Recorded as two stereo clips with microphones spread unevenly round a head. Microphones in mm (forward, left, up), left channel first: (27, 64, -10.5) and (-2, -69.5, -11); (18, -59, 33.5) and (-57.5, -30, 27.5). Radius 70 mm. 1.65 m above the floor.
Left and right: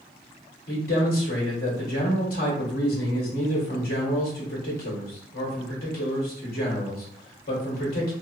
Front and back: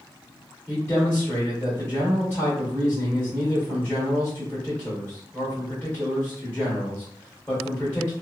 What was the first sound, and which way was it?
A man speaking, 55° left.